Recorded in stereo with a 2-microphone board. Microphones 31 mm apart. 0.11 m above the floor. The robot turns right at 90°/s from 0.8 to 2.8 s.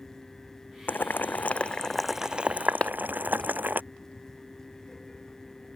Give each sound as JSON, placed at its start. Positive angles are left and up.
{"t": 0.9, "sound": "boiling", "side_deg": 75}
{"t": 2.8, "sound": "a clap", "side_deg": 40}